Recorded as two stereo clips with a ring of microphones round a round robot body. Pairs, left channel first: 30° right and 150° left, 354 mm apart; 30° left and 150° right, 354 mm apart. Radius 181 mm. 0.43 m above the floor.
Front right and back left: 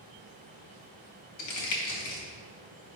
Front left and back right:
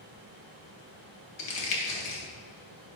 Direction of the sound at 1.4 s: 5° left.